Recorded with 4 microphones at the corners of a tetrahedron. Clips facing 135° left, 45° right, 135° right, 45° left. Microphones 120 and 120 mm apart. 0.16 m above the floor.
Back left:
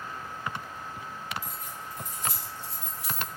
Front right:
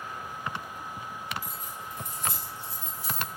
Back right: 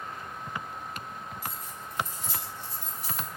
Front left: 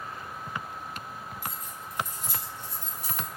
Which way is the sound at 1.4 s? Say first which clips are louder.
Even, even; 35° left.